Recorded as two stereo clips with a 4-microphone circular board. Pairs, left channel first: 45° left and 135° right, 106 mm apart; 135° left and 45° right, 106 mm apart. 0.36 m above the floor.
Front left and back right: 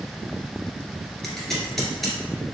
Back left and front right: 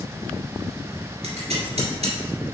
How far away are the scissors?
About 1.7 m.